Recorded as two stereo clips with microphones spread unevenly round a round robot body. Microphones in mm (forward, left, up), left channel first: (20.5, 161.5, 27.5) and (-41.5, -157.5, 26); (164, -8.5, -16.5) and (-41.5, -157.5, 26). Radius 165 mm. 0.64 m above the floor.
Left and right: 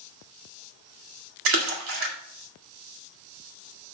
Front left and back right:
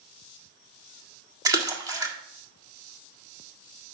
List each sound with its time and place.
1.4 s a splash: 60° right, 1.6 m